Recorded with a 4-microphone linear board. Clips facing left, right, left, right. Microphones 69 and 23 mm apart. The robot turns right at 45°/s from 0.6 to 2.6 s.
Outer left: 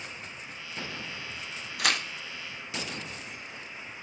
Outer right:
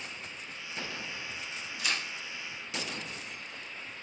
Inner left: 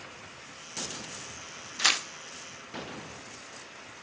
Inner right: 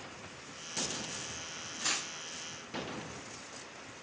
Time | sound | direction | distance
1.8 | tearing paper | 65° left (ahead or behind) | 0.5 m